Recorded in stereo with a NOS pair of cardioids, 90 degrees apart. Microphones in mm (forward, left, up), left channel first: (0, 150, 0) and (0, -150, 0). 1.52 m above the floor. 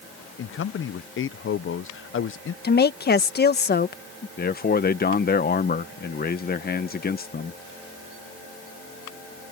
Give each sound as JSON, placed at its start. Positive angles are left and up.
{"t": 0.4, "sound": "a man speaking", "azimuth_deg": 45}
{"t": 2.6, "sound": "a woman speaking", "azimuth_deg": 30}
{"t": 4.4, "sound": "a man speaking", "azimuth_deg": 30}